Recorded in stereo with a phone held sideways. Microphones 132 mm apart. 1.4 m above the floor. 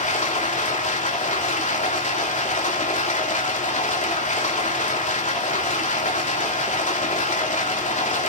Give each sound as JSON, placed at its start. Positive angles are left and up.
{"t": 0.0, "sound": "running water", "side_deg": 70, "distance_m": 3.0}